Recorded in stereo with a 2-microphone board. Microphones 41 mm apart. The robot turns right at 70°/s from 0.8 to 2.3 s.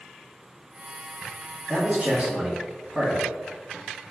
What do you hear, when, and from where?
1.7 s a man speaking: 105° right, 1.8 m; by 3.3 s 65° right, 1.8 m